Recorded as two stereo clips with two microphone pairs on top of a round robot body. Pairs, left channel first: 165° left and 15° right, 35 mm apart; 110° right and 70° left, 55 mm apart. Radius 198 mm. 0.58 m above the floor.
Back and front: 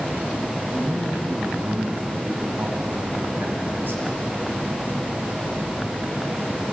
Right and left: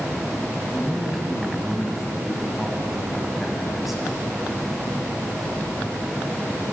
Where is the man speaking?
15° right, 6.5 m.